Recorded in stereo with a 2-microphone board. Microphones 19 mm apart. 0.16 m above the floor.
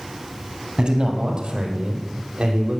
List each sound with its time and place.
0.8 s a man speaking: 40° right (ahead or behind), 4 m; by 2.8 s 65° right (ahead or behind), 6 m